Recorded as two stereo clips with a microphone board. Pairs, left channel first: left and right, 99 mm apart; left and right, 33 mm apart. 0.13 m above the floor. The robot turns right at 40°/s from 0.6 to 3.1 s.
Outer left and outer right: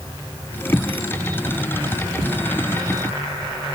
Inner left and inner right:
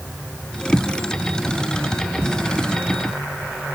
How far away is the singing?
No singing in this recording.